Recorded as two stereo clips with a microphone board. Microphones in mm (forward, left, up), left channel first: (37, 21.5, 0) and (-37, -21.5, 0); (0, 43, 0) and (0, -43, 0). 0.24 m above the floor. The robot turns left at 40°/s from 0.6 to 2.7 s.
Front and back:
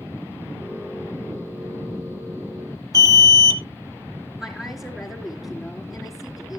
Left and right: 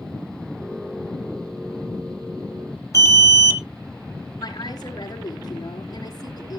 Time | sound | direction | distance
2.9 | an alarm | 55° left | 1.0 m
4.4 | a woman speaking | 125° left | 3.5 m